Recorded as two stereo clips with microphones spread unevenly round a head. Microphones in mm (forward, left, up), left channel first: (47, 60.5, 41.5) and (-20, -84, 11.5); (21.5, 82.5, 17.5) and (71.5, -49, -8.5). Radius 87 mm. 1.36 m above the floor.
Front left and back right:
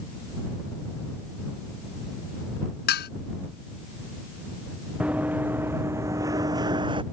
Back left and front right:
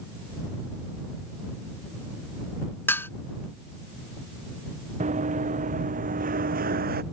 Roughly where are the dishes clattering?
Ahead left.